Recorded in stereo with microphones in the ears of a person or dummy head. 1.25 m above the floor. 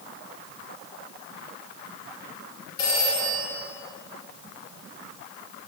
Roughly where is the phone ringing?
Left.